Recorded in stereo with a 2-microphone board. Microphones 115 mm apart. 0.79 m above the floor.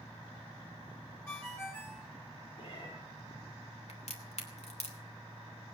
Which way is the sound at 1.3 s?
20° left (ahead or behind).